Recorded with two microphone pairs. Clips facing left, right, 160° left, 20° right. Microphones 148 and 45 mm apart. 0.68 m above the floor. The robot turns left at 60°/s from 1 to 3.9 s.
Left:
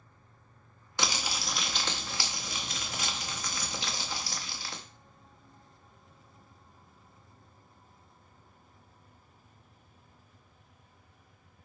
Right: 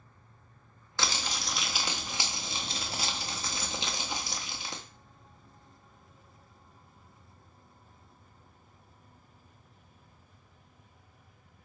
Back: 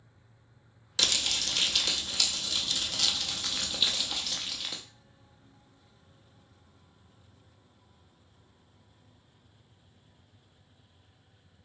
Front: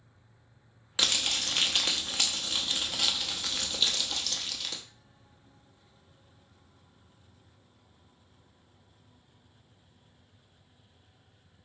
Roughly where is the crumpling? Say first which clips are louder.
Left 1 dB, front 1 dB; ahead left.